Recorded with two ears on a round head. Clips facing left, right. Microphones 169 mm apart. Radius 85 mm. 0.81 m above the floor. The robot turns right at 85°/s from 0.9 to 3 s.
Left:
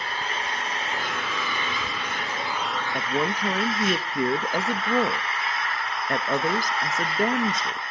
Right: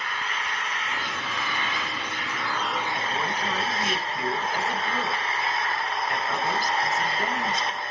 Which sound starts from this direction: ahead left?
An engine running, at 0.0 s.